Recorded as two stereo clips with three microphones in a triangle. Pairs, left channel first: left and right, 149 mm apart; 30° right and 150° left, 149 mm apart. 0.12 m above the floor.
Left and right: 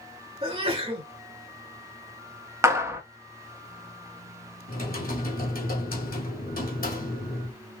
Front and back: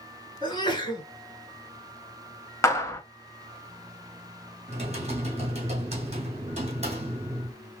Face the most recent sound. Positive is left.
turn(degrees=105)